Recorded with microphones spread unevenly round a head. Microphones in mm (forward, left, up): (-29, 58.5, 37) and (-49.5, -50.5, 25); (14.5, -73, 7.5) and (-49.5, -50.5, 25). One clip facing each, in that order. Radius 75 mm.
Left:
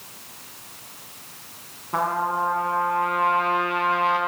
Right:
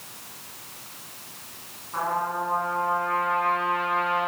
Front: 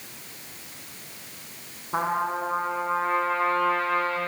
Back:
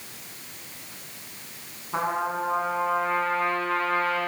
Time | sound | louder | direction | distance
1.9 | a trumpet | left 3 dB, front 1 dB | 65° left | 4 m